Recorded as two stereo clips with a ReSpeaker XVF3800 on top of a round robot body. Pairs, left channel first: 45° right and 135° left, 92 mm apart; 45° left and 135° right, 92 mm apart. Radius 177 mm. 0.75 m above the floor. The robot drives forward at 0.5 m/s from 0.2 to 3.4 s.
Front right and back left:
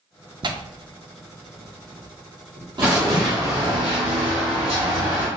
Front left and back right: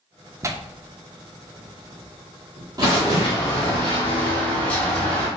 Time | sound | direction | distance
0.4 | tearing paper | 170° left | 0.7 m
2.8 | running footsteps | 60° left | 1.0 m